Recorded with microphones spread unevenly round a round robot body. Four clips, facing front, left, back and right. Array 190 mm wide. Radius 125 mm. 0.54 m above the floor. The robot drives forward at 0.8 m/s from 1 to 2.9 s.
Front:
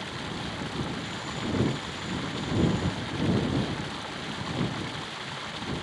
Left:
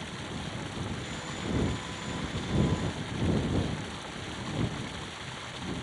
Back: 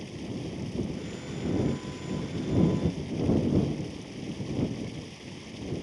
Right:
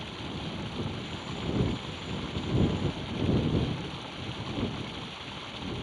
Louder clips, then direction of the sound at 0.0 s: Right 1 dB, front 1 dB; 10° left.